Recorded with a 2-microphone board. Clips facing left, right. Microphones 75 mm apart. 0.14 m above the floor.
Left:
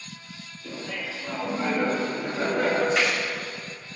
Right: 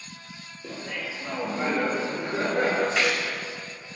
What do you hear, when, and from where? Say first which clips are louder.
0.6 s laughter: even; 55° right (ahead or behind), 3 m; by 2.9 s 40° right (ahead or behind), 3 m
3.0 s a gunshot: even; 5° left (ahead or behind), 2 m